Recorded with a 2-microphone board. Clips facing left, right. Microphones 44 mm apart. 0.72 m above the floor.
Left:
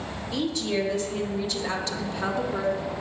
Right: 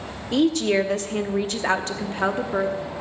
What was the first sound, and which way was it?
A woman speaking, 60° right (ahead or behind).